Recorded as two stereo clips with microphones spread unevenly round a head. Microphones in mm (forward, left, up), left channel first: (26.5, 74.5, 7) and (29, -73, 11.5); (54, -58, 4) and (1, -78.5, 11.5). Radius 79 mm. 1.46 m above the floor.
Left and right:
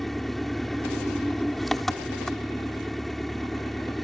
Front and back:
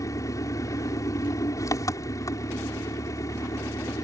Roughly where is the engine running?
Ahead.